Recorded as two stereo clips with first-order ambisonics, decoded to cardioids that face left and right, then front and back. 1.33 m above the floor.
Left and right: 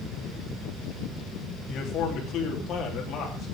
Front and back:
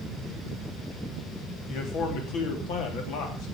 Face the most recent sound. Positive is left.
turn(degrees=35)